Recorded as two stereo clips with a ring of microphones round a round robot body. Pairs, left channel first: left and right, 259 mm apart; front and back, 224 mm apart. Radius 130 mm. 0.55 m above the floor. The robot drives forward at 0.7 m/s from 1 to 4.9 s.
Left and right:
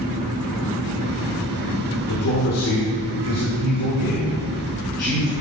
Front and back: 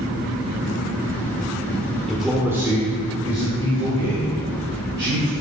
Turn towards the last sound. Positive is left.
turn(degrees=145)